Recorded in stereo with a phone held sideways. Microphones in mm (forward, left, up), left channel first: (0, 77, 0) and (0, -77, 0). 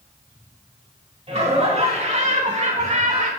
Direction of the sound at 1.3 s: 40° right (ahead or behind).